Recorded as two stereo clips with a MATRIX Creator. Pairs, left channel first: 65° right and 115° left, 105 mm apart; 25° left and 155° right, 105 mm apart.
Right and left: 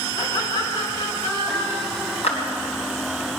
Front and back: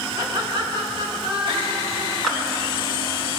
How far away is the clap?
About 4 m.